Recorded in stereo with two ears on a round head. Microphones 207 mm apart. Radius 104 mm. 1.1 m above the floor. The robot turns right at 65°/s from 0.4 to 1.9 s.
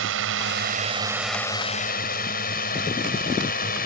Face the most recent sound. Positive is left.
turn(degrees=40)  # may be behind; listen again after turning